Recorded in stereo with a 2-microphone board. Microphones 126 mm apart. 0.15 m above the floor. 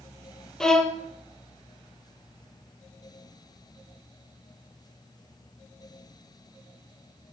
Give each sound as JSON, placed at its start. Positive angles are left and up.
{"t": 0.6, "sound": "a violin", "side_deg": 5, "distance_m": 1.1}